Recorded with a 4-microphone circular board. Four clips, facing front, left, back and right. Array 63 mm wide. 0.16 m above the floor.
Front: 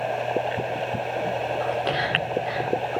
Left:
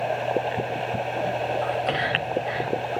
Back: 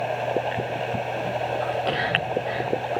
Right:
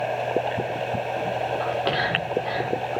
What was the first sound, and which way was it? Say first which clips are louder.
Whispering: right 1 dB, even; 85° right.